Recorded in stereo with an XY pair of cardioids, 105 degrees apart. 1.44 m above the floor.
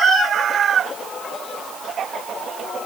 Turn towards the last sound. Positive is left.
No sound to turn to.